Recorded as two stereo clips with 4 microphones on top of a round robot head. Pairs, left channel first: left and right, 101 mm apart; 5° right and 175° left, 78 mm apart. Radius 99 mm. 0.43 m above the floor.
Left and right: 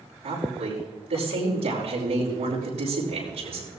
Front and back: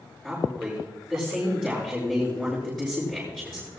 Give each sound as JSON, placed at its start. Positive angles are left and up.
{"t": 0.2, "sound": "a woman speaking", "azimuth_deg": -90, "distance_m": 7.0}